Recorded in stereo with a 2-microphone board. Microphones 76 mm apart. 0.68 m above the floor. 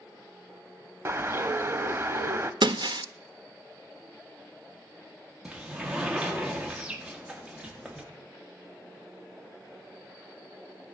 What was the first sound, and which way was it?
A bird, 30° right (ahead or behind).